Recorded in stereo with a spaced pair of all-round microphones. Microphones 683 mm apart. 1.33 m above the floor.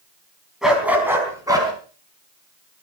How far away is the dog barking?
About 4.5 m.